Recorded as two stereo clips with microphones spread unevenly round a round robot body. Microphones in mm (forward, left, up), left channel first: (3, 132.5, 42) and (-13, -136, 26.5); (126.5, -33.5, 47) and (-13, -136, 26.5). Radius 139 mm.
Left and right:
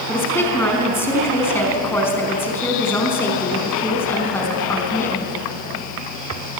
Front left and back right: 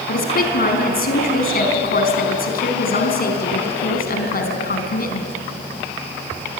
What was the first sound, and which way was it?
A woman speaking, 5° left.